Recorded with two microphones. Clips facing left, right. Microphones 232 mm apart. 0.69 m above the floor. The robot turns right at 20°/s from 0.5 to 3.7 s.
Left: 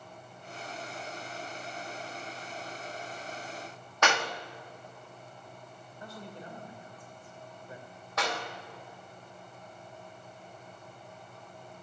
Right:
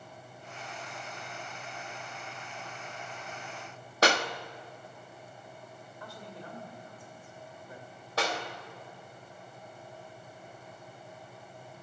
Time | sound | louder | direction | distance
4.0 | a clap | right 3 dB | 35° right (ahead or behind) | 0.8 m
6.0 | a man speaking | left 2 dB | 20° left (ahead or behind) | 2 m
8.2 | a clap | right 2 dB | 35° right (ahead or behind) | 3 m